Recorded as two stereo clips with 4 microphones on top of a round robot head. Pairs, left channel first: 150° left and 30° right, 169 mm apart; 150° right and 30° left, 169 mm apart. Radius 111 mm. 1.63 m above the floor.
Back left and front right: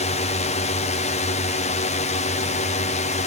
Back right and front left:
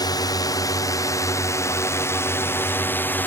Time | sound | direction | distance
0.0 | a drone | 160° left | ?